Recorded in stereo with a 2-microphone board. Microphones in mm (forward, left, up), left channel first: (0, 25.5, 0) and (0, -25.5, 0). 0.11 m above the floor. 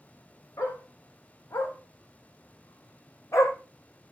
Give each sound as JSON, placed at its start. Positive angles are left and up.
{"t": 0.6, "sound": "a dog barking", "side_deg": 80, "distance_m": 4.5}